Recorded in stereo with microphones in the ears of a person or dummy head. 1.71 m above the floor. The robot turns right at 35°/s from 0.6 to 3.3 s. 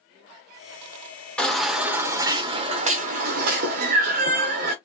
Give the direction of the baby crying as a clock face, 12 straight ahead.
6 o'clock.